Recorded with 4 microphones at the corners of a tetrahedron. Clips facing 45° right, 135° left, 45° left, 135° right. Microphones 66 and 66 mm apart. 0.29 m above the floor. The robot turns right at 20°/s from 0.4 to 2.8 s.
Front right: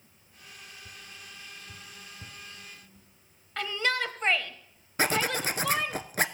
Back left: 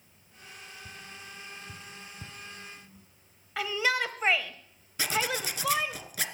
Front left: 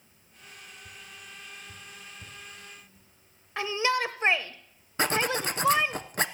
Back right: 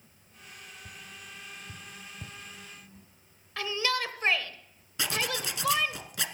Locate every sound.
0.8 s tapping: 165° left, 1.8 m; by 3.1 s 155° right, 1.8 m
3.6 s a shout: 65° left, 0.9 m
5.0 s a zipper: straight ahead, 0.8 m